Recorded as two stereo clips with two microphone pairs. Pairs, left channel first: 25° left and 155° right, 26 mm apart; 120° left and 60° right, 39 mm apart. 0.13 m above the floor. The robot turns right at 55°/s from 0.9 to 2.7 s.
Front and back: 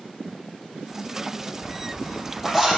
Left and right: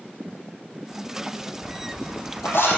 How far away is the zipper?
About 4.5 m.